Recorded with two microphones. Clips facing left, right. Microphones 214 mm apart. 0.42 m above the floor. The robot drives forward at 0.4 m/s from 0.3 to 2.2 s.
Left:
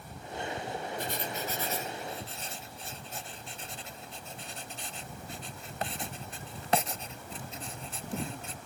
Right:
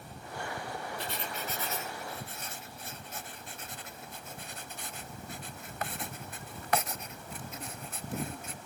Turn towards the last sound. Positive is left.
turn(degrees=30)  # may be behind; listen again after turning